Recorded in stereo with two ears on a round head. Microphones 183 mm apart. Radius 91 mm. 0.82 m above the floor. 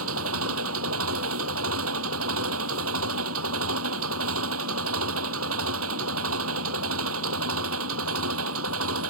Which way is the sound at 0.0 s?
75° right (ahead or behind).